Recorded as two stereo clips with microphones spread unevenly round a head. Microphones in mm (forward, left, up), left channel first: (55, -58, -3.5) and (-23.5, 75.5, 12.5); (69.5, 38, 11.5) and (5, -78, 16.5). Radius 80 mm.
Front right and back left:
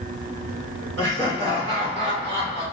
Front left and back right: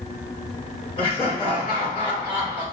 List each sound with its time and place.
1.0 s laughter: 125° left, 2 m